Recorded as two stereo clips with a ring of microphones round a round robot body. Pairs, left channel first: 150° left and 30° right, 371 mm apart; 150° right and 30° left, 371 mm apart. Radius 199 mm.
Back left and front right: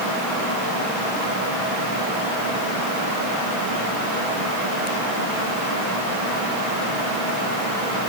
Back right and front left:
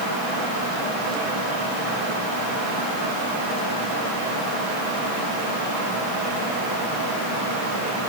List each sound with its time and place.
Only background noise.